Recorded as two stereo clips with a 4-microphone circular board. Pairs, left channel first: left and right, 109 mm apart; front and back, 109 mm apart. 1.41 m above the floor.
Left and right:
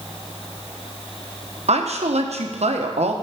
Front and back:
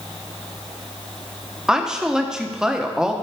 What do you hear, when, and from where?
1.7 s a woman speaking: 95° right, 1.1 m